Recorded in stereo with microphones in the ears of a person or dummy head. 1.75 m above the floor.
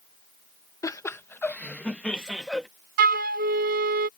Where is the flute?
55° right (ahead or behind).